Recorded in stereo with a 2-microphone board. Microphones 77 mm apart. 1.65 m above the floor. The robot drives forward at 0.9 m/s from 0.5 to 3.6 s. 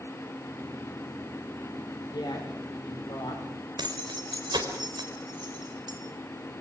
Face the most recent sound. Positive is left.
turn(degrees=-70)  # may be behind; listen again after turning